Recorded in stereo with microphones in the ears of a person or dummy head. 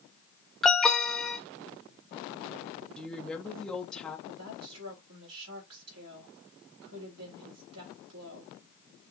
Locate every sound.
0.6 s an alarm: centre (ahead or behind), 0.7 m
3.0 s a woman speaking: 5° left (ahead or behind), 0.6 m
4.3 s a woman speaking: 80° right, 2.5 m